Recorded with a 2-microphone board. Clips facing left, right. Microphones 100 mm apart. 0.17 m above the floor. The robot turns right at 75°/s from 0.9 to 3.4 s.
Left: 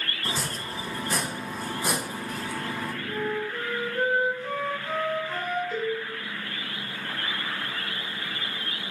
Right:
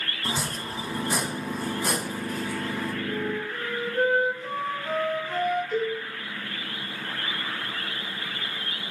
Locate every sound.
0.2 s chopping: 15° right (ahead or behind), 0.9 m; by 2.9 s 20° left (ahead or behind), 0.9 m
3.1 s a flute: 5° right (ahead or behind), 4 m; by 5.6 s 30° right (ahead or behind), 4 m
5.7 s a cowbell: 10° left (ahead or behind), 3 m